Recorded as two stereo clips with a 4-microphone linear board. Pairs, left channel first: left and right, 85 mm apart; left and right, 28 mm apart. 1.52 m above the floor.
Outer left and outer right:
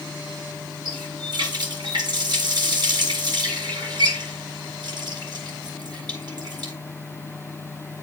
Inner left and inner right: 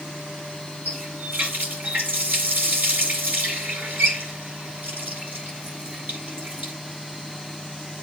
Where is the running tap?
60° right (ahead or behind), 7.5 m.